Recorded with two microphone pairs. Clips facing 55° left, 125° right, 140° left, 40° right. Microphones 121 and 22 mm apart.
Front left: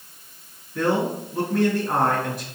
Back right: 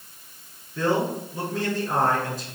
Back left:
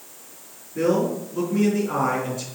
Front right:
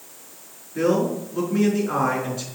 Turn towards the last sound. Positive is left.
turn(degrees=30)